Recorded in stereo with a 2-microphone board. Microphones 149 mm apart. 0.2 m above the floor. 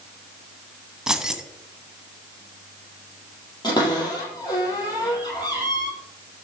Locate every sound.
1.1 s keys jangling: 5° right (ahead or behind), 1.2 m
3.6 s a cupboard door: 25° left (ahead or behind), 5.5 m